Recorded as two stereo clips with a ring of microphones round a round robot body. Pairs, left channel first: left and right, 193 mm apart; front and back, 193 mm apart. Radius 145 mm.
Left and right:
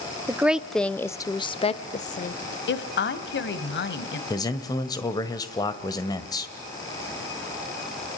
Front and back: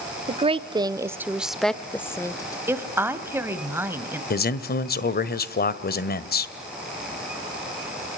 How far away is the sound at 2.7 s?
About 2 m.